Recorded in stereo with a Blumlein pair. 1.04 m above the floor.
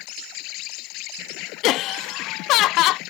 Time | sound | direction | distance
0.0 | an insect | 40° left | ?
1.6 | laughter | 40° left | ?